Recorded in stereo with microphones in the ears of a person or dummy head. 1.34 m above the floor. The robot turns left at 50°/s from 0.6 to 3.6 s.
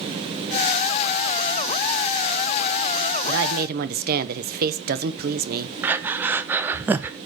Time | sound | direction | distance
3.3 | a woman speaking | 65° right (ahead or behind) | 0.8 m
5.8 | breathing | 10° right (ahead or behind) | 0.6 m